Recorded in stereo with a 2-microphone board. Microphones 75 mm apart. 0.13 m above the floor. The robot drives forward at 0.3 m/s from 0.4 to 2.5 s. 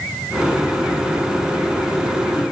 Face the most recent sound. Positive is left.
No sound to turn to.